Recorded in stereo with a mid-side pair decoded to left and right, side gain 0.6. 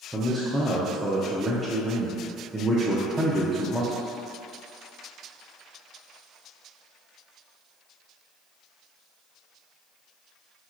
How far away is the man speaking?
About 0.5 m.